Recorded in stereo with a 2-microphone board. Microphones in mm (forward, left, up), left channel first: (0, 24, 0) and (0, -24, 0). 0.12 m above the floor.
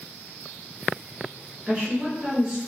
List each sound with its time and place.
1.7 s a woman speaking: 20° right (ahead or behind), 1.1 m